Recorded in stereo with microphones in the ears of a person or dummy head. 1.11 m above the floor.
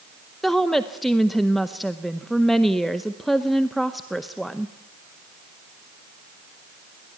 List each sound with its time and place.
0.4 s a woman speaking: centre (ahead or behind), 0.7 m